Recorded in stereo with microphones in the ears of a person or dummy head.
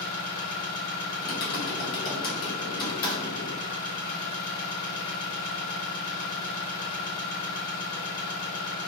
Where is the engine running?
45° left (ahead or behind), 1.9 m.